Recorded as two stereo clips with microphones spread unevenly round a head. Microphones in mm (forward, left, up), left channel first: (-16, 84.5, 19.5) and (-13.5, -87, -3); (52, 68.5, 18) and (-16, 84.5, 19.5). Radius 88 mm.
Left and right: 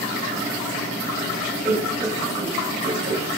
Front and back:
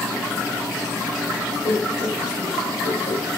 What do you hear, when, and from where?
1.6 s laughter: 5° right, 6 m; by 3.2 s 30° right, 6.5 m